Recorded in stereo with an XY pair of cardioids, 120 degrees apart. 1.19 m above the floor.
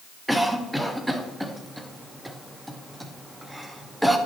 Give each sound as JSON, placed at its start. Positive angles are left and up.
{"t": 0.3, "sound": "a cough", "azimuth_deg": -5, "distance_m": 1.0}